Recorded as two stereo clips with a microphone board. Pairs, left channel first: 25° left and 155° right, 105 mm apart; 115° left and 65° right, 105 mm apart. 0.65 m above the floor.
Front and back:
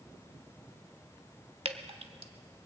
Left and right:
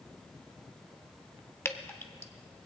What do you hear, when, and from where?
1.6 s dripping: straight behind, 0.7 m